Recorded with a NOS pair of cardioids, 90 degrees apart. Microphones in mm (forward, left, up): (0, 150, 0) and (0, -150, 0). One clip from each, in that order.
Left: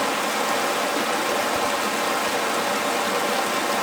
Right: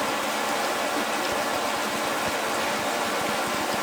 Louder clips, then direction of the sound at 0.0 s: Left 3 dB; 30° left.